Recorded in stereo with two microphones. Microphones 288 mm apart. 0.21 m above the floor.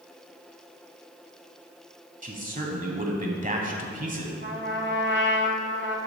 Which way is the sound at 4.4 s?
40° right (ahead or behind).